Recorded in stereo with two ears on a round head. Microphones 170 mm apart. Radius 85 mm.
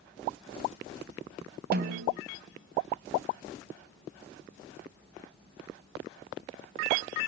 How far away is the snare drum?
About 1.7 m.